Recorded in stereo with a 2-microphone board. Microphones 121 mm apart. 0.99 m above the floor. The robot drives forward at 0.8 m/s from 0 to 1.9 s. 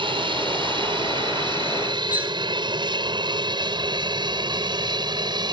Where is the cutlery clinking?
15° right (ahead or behind).